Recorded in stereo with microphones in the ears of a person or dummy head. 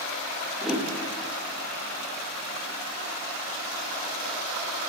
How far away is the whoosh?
About 0.6 m.